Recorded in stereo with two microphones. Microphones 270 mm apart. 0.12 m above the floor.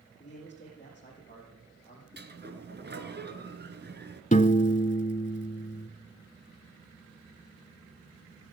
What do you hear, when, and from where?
0.2 s a man speaking: 25° left (ahead or behind), 4.5 m; by 2.1 s 15° left (ahead or behind), 4.5 m
2.2 s a sliding door: 40° right (ahead or behind), 1.4 m
4.3 s a piano: 30° left (ahead or behind), 0.6 m